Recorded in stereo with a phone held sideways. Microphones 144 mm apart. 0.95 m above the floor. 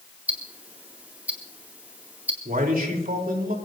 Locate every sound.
0.3 s ticking: 10° right (ahead or behind), 2 m
2.5 s a man speaking: 80° right, 3 m